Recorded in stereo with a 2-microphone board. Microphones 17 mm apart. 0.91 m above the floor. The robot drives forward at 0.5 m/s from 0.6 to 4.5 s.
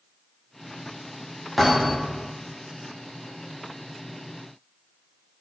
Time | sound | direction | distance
1.6 | a thud | 5° right (ahead or behind) | 1.2 m